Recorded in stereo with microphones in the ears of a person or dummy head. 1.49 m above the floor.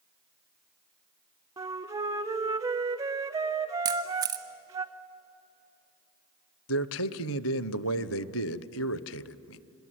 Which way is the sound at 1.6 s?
20° right (ahead or behind).